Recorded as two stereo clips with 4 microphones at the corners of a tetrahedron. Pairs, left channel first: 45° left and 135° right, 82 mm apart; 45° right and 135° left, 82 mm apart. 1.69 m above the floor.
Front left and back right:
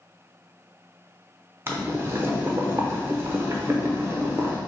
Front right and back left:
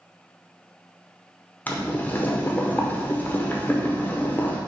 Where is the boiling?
100° right, 0.7 m.